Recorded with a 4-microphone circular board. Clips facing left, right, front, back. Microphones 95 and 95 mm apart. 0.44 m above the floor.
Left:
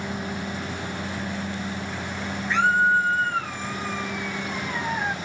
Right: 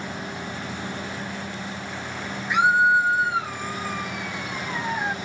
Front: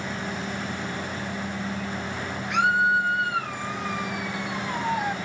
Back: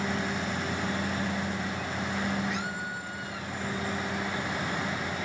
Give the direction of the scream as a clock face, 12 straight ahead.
1 o'clock.